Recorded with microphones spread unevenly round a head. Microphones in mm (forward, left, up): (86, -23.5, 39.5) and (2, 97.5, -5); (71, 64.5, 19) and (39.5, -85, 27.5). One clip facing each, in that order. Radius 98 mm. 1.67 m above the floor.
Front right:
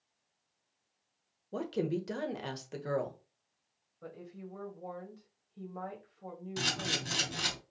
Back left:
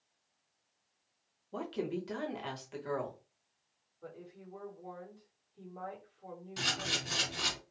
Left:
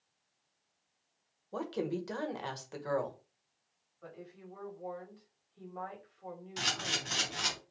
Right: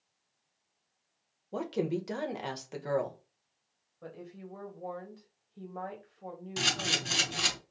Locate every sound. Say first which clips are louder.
1.5 s a woman speaking: front right 3 dB, right 3 dB; 35° right, 1.2 m
4.0 s a woman speaking: front right 3 dB, right 4 dB; 65° right, 1.9 m
6.6 s a camera shutter: front right 2 dB, right 5 dB; 75° right, 3 m